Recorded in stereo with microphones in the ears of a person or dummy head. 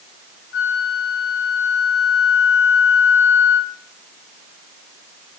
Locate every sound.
0.5 s a flute: 55° left (ahead or behind), 0.7 m